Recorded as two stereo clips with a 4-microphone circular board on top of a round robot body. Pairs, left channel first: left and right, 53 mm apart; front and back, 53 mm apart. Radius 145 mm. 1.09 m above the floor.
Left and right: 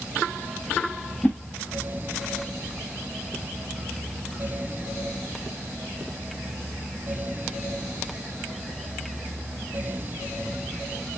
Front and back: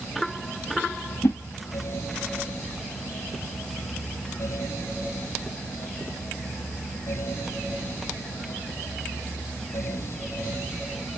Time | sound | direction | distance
1.2 | a whoosh | 25° left | 0.9 m